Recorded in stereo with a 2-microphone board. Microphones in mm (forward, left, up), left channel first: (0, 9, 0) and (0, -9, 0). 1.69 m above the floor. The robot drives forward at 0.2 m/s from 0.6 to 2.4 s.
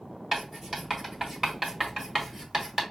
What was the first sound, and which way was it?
Writing, 35° right (ahead or behind).